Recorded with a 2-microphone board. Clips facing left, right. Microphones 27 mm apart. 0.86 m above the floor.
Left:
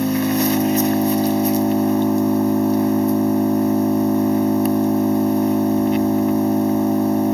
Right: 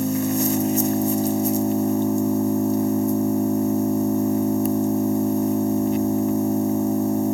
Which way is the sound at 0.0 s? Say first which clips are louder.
Left 4 dB; 40° left (ahead or behind).